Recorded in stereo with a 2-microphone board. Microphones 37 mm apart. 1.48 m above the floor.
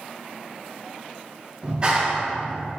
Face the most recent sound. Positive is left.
turn(degrees=-25)  # may be behind; listen again after turning